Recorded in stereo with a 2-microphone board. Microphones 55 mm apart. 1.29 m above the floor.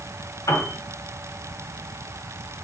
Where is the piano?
85° left, 1.9 m.